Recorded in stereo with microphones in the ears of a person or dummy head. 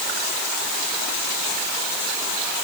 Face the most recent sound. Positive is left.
No sound to turn to.